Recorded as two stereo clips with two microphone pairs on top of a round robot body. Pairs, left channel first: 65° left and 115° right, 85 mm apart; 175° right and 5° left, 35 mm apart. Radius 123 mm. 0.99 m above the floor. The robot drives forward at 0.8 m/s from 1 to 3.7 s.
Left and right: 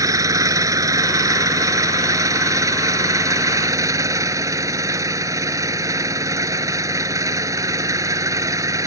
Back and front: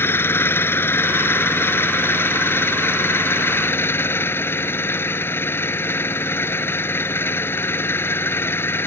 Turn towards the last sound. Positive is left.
turn(degrees=-170)